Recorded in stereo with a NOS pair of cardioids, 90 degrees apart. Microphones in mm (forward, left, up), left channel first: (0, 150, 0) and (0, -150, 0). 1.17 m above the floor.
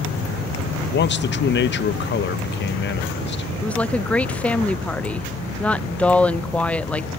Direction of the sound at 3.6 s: 5° left.